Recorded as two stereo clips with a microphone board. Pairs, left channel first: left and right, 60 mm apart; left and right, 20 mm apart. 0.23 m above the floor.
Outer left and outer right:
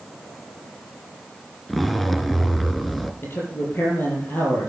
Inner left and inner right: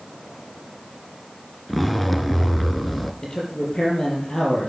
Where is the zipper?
5° left (ahead or behind), 0.9 m.